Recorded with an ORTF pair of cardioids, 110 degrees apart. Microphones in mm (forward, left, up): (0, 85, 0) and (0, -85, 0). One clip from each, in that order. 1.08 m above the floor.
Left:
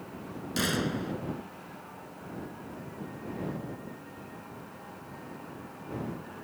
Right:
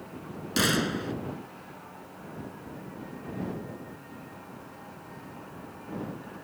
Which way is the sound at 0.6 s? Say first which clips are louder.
Right 4 dB; 30° right.